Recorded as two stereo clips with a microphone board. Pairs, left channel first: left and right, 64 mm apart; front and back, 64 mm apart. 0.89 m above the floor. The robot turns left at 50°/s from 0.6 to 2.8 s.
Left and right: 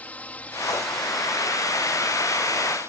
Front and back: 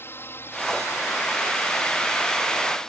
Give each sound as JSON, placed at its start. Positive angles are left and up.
{"t": 0.0, "sound": "a drone", "azimuth_deg": 35}